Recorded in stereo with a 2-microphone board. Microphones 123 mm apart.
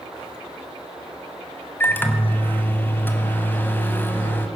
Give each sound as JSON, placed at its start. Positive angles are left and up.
{"t": 1.8, "sound": "a microwave", "side_deg": 15, "distance_m": 1.4}